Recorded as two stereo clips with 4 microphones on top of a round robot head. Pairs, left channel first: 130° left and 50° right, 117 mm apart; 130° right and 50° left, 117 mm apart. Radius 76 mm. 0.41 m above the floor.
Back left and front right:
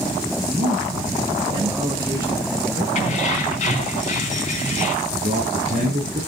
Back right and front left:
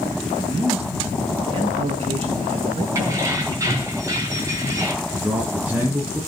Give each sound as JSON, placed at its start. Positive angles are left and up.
{"t": 0.4, "sound": "a man speaking", "azimuth_deg": 15, "distance_m": 3.0}
{"t": 3.0, "sound": "keys jangling", "azimuth_deg": 115, "distance_m": 3.5}
{"t": 5.0, "sound": "a man speaking", "azimuth_deg": -25, "distance_m": 6.5}